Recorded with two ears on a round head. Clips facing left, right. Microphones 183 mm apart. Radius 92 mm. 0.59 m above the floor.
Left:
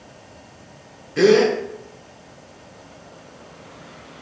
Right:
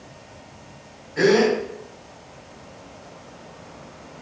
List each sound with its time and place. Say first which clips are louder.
1.2 s a gasp: left 3 dB; 45° left (ahead or behind), 0.7 m